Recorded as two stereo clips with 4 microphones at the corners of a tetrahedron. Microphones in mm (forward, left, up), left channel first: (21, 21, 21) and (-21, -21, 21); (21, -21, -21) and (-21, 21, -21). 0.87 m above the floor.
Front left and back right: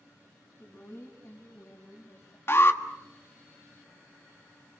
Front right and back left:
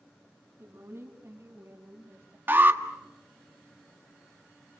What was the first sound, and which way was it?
A woman speaking, 95° left.